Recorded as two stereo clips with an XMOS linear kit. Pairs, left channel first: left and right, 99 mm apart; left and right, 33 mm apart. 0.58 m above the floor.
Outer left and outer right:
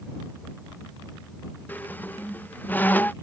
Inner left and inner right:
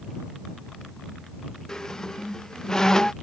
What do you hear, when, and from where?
1.7 s a squeak: 20° left (ahead or behind)